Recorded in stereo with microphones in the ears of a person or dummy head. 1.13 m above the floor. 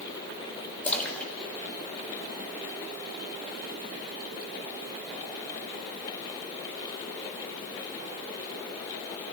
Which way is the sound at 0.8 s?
5° left (ahead or behind).